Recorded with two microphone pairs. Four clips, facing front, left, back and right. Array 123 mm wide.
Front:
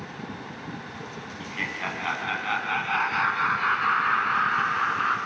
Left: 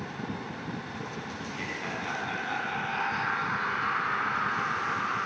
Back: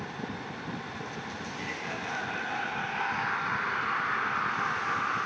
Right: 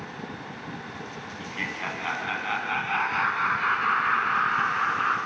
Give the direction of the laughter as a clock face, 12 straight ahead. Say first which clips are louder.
Right 2 dB, front 4 dB; 1 o'clock.